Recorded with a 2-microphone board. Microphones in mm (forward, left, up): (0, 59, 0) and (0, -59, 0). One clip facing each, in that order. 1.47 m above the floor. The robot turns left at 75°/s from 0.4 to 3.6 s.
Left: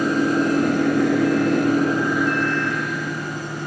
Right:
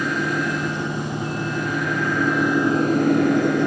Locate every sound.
0.0 s an engine running: 145° left; by 3.7 s 95° right